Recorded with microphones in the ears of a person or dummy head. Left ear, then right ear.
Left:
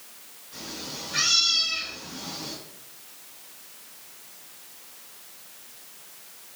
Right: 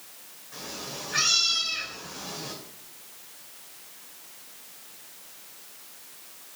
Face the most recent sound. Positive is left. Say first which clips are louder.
# left 1 dB
turn(degrees=-40)  # may be behind; listen again after turning